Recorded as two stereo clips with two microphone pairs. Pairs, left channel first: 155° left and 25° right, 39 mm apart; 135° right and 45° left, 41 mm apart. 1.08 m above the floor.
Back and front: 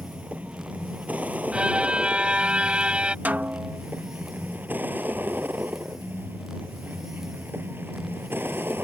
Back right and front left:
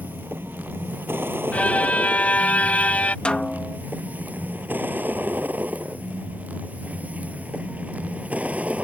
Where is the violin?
85° right.